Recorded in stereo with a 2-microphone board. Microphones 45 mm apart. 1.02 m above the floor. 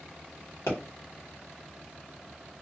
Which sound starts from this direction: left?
A pop, at 0.7 s.